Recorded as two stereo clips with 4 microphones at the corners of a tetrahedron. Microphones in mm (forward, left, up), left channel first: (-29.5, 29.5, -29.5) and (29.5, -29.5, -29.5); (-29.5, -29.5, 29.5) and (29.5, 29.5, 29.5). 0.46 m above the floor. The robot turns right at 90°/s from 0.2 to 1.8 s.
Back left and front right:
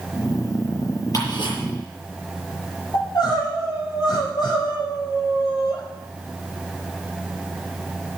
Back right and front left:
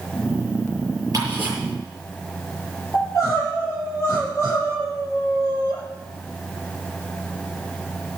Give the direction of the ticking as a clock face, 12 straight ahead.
9 o'clock.